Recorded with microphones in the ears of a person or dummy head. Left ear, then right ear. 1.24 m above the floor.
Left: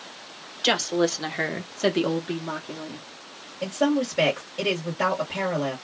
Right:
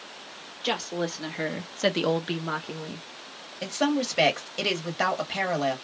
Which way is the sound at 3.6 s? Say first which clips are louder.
Left 2 dB; 30° right (ahead or behind).